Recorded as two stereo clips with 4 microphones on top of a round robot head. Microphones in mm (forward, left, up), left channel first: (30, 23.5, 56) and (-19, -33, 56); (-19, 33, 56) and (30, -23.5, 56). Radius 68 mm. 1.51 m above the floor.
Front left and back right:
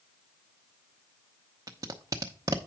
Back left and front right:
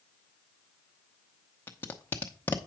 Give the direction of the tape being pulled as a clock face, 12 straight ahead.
6 o'clock.